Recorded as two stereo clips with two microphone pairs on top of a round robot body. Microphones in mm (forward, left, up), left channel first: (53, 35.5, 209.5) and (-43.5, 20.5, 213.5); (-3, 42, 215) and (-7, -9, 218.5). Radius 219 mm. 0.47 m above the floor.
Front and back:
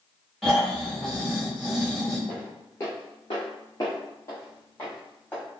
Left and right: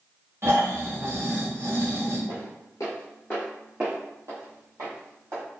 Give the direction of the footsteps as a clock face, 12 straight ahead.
9 o'clock.